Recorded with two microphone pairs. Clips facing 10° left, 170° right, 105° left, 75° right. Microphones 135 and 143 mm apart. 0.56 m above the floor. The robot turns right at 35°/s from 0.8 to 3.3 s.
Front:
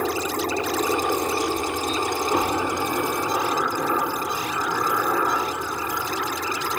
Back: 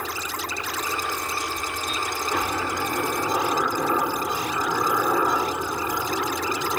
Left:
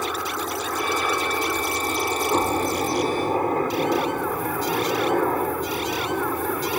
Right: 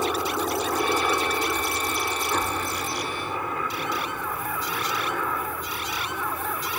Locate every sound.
0.0 s a helicopter: 5° right; by 6.8 s 115° left